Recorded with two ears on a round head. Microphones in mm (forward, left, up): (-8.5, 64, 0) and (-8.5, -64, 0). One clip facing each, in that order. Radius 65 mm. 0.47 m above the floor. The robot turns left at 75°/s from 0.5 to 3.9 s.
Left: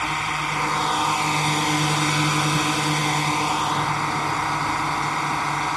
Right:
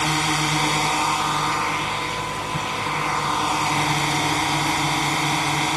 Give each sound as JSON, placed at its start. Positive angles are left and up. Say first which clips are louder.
{"t": 0.0, "sound": "a drone", "louder": "right 4 dB", "azimuth_deg": -135}